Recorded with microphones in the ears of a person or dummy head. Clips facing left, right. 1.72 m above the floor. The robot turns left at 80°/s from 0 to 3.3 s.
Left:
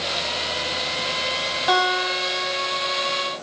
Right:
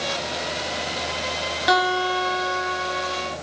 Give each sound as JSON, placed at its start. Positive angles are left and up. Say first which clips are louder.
{"t": 1.7, "sound": "a guitar", "louder": "right 1 dB", "azimuth_deg": -25, "distance_m": 3.5}